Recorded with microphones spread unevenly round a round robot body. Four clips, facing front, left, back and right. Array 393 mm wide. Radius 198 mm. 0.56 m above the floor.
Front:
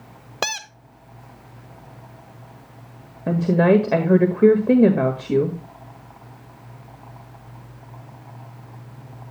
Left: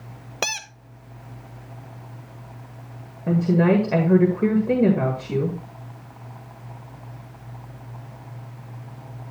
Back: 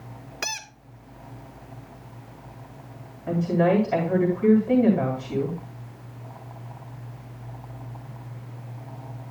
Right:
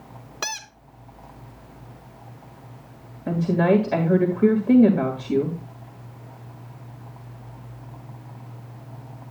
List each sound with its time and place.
0.4 s a squeak: 35° left, 0.9 m
3.3 s a woman speaking: 10° left, 1.8 m